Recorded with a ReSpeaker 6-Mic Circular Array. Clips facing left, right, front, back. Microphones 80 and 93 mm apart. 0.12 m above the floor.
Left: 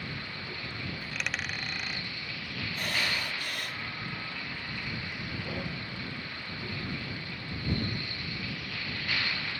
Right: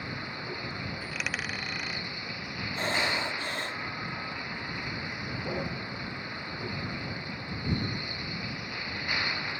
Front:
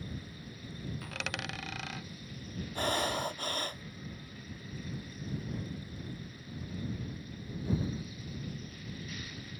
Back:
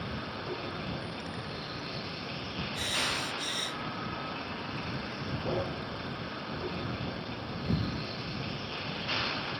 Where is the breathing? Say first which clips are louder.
Right 4 dB, front 5 dB; 35° right.